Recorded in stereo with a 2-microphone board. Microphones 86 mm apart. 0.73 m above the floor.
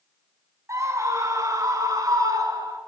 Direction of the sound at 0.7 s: 40° right (ahead or behind).